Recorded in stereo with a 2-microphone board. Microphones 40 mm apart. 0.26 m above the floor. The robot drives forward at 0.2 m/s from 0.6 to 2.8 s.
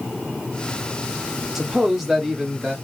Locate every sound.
1.6 s a man speaking: 5° right (ahead or behind), 1.0 m